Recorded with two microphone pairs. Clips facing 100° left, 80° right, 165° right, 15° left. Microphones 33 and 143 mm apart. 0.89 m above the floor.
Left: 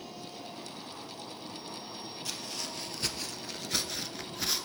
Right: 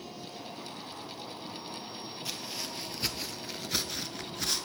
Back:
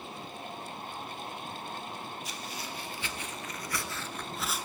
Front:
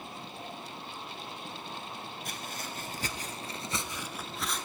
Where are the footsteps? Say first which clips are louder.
Right 1 dB, even; straight ahead, 1.4 m; by 4.7 s 165° left, 0.8 m.